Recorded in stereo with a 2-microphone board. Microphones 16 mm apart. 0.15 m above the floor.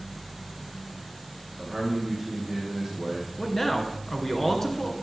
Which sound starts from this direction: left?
A man speaking, at 3.4 s.